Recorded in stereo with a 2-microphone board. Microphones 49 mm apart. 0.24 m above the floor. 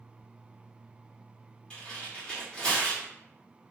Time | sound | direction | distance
1.7 | tearing paper | 20° left (ahead or behind) | 1.3 m